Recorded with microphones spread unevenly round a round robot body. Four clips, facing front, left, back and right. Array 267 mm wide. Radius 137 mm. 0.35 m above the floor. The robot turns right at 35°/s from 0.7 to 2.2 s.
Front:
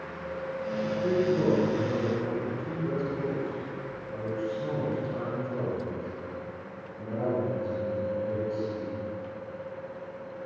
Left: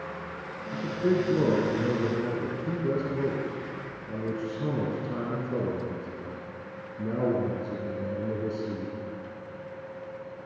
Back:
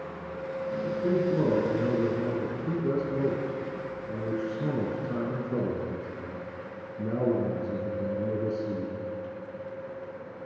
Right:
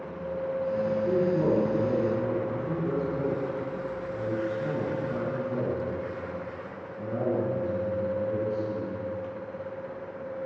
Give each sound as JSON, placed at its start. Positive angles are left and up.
{"t": 0.7, "sound": "a man speaking", "azimuth_deg": 95, "distance_m": 6.0}